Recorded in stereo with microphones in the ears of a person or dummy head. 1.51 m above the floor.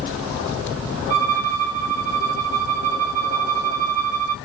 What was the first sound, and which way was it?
A violin, 50° right (ahead or behind).